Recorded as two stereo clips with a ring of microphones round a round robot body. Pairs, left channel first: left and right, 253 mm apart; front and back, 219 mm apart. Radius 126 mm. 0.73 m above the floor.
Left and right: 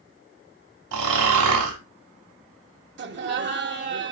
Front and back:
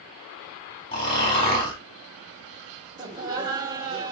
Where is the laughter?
115° right, 1.1 m.